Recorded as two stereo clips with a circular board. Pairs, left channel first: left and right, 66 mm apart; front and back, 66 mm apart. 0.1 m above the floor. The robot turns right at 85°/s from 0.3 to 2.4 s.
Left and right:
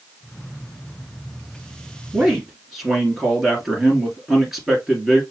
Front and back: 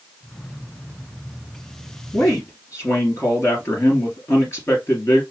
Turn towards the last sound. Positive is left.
turn(degrees=-10)